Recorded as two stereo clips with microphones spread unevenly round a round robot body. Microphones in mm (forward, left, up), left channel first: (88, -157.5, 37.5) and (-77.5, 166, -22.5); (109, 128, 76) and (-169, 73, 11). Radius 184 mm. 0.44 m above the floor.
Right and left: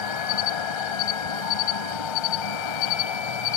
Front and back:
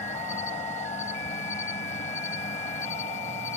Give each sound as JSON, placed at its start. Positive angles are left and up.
{"t": 0.0, "sound": "an insect", "azimuth_deg": -65}